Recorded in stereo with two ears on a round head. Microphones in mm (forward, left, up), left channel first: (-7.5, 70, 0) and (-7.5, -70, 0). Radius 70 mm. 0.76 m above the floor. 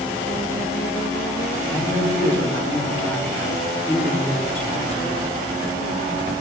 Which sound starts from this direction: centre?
A man speaking, at 1.6 s.